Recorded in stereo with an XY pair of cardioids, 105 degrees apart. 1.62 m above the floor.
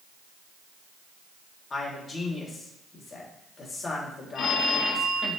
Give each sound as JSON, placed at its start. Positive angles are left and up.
{"t": 1.7, "sound": "a man speaking", "azimuth_deg": 35, "distance_m": 3.5}
{"t": 4.3, "sound": "a phone ringing", "azimuth_deg": 60, "distance_m": 1.5}